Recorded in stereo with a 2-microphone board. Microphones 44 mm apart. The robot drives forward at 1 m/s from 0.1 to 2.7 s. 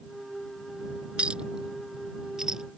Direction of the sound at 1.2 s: 25° right (ahead or behind).